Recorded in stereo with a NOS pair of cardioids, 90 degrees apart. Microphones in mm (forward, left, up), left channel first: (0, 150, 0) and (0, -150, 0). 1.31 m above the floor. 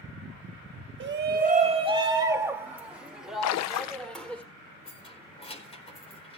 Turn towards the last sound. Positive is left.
turn(degrees=20)